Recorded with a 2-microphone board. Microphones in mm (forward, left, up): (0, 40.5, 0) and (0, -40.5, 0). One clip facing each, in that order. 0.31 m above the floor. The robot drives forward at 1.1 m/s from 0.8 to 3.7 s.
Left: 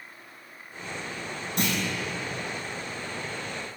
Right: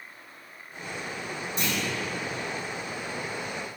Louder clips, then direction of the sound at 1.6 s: Left 3 dB; 65° left (ahead or behind).